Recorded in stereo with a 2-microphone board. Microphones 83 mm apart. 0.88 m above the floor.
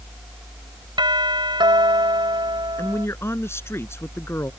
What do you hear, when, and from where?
1.0 s a doorbell: 70° right (ahead or behind)
2.8 s a man speaking: 30° left (ahead or behind)